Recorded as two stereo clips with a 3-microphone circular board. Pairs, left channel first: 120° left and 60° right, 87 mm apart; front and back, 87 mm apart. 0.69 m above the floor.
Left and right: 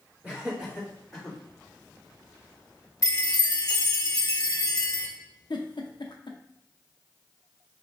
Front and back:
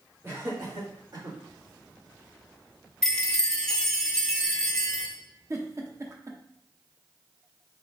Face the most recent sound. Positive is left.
turn(degrees=135)